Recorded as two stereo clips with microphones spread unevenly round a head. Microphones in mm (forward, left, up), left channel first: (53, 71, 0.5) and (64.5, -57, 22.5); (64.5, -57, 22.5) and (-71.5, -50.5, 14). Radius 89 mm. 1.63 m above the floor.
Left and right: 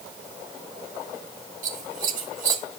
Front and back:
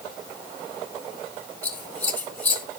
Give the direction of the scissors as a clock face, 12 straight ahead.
3 o'clock.